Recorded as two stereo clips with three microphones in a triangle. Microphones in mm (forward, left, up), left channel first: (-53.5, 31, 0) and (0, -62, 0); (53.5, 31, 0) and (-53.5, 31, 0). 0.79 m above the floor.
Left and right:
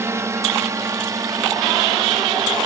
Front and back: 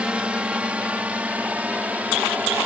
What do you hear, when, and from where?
0.0 s a drone: 105° right